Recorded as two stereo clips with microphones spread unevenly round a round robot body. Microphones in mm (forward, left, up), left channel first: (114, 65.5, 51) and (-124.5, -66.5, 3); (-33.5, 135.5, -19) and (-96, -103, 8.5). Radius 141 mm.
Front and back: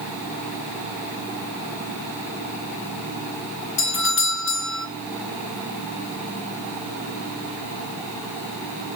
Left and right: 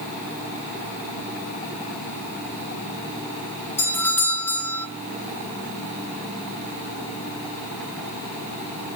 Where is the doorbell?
5° left, 1.2 m.